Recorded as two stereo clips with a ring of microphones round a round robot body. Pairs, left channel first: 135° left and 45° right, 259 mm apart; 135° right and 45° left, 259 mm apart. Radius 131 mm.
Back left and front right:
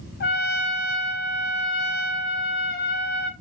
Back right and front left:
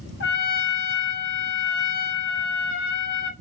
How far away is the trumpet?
About 5 m.